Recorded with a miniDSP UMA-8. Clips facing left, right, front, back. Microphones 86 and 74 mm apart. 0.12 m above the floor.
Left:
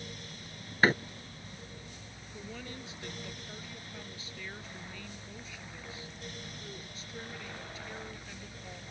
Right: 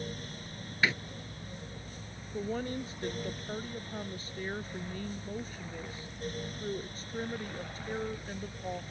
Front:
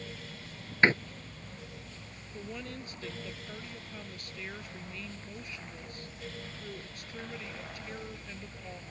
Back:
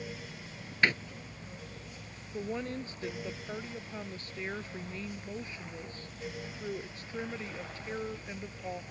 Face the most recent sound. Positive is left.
turn(degrees=-125)